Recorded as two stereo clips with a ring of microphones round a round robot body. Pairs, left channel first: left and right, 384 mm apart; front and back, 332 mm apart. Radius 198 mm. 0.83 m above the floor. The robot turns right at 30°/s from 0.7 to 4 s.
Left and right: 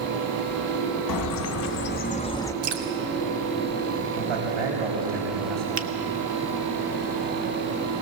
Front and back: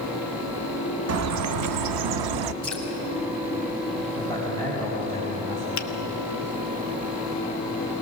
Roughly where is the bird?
Behind left.